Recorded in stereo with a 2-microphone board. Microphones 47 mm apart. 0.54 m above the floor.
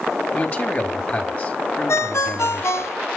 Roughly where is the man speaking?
Left.